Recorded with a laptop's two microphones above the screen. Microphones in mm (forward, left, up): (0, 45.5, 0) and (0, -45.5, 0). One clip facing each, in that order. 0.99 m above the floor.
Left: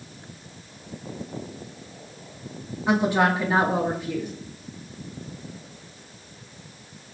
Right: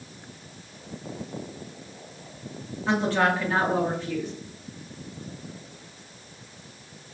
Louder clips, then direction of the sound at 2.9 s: Left 2 dB; 15° left (ahead or behind).